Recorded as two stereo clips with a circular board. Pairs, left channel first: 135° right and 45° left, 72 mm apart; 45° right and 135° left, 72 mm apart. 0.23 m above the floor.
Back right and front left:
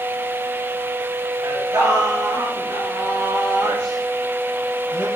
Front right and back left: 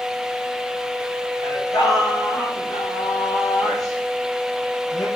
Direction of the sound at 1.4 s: 5° right.